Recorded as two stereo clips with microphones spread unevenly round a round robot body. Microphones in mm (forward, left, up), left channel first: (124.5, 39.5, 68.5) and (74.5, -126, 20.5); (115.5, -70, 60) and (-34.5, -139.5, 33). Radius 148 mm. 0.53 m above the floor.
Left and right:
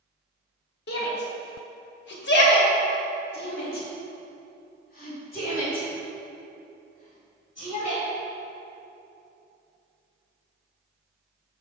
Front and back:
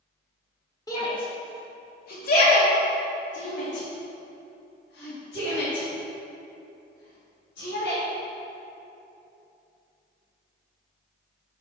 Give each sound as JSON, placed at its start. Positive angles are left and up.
{"t": 0.9, "sound": "a shout", "azimuth_deg": 100, "distance_m": 1.6}